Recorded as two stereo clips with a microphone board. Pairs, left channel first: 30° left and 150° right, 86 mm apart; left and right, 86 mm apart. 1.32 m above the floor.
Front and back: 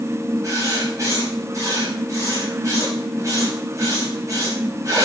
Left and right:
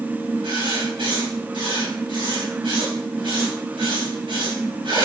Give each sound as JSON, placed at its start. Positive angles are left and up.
{"t": 0.4, "sound": "writing", "azimuth_deg": -100, "distance_m": 4.5}